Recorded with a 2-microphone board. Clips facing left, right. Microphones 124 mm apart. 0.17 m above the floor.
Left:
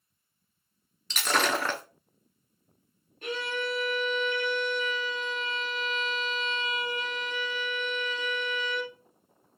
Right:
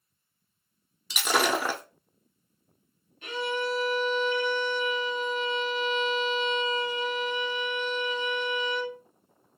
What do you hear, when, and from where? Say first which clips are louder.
1.1 s breaking glass: right 2 dB; 10° right (ahead or behind), 0.6 m
3.2 s a violin: right 2 dB; 45° left (ahead or behind), 1.4 m